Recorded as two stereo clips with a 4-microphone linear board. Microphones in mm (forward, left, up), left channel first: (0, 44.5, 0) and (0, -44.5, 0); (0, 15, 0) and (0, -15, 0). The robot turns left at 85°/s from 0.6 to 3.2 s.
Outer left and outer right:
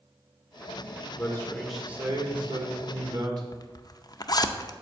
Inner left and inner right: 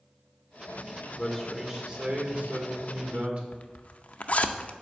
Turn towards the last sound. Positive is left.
turn(degrees=45)  # may be behind; listen again after turning